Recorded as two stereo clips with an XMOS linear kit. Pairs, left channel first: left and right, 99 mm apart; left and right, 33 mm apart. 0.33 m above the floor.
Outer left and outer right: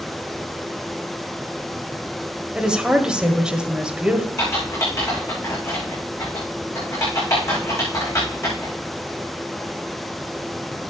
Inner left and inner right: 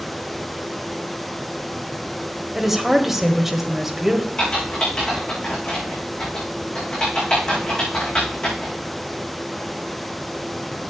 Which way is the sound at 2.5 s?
10° right (ahead or behind).